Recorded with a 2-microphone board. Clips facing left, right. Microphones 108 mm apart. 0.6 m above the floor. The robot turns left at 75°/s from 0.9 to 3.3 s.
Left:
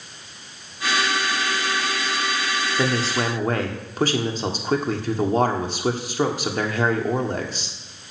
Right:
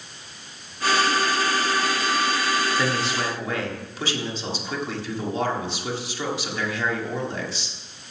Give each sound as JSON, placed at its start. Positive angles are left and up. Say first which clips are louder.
{"t": 2.8, "sound": "a man speaking", "louder": "left 2 dB", "azimuth_deg": 150, "distance_m": 1.6}